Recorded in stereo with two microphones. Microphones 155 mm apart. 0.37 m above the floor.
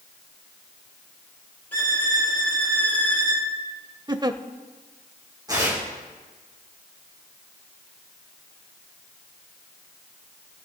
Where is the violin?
10° left (ahead or behind), 8 m.